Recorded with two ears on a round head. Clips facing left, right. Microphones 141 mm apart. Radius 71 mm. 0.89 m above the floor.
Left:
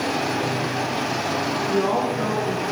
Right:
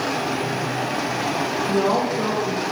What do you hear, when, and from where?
1.7 s a woman speaking: 40° right (ahead or behind), 1.1 m